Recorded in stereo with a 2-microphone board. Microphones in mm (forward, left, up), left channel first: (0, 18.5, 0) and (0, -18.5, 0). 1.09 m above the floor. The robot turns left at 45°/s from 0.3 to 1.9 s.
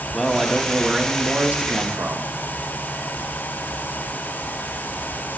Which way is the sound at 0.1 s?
10° left.